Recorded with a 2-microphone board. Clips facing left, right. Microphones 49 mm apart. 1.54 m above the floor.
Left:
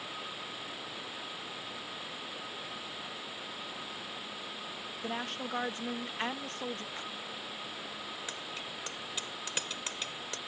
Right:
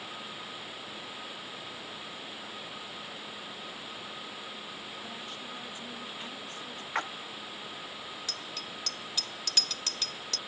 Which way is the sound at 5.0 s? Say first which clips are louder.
Left 5 dB; 70° left (ahead or behind).